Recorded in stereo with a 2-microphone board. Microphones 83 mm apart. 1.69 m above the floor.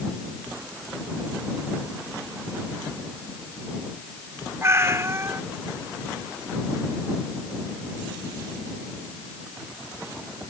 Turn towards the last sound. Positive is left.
turn(degrees=-35)  # may be behind; listen again after turning